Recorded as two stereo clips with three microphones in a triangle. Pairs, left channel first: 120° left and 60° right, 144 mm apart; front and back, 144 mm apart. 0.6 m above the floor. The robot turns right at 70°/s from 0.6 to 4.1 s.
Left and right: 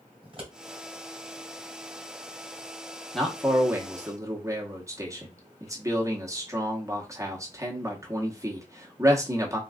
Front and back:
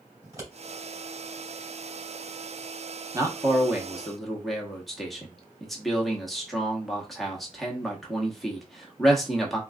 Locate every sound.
0.2 s scissors: 110° right, 2 m
3.1 s a man speaking: 155° right, 0.9 m; by 9.6 s 90° right, 0.9 m